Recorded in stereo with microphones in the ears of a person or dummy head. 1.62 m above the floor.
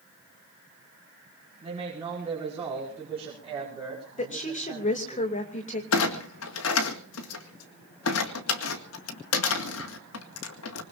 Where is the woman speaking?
40° left (ahead or behind), 2.5 m.